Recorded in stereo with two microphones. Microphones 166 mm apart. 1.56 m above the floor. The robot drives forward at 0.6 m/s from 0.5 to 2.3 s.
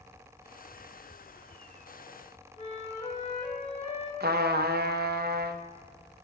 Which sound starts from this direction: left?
A flute, at 2.6 s.